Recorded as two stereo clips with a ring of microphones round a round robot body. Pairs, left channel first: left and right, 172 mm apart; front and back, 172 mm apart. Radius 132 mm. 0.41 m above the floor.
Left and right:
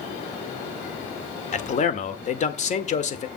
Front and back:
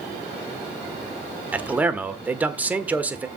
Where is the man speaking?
100° left, 1.6 m.